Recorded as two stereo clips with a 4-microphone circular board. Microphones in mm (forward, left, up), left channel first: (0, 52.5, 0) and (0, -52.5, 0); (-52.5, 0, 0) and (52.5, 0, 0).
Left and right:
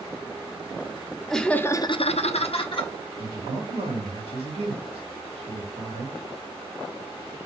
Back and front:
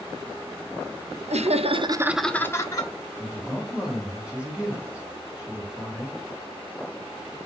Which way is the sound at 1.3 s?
5° left.